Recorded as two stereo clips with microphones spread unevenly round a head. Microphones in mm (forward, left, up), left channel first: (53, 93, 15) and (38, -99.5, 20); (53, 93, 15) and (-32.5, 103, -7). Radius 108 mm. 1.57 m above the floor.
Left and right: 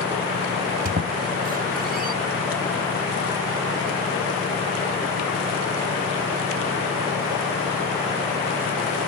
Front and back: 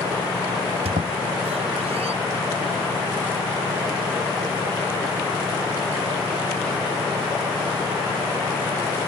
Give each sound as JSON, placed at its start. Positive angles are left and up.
{"t": 0.8, "sound": "a squeak", "azimuth_deg": -145}